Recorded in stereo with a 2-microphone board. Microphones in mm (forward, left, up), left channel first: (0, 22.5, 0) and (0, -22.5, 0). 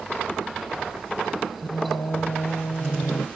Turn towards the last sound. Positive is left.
turn(degrees=85)